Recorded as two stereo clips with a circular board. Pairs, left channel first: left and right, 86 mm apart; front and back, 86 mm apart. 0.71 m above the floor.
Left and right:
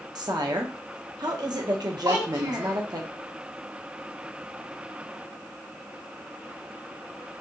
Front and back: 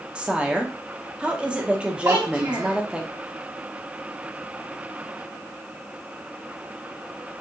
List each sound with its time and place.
0.1 s a woman speaking: 105° right, 0.9 m
2.0 s a child speaking: 135° right, 1.6 m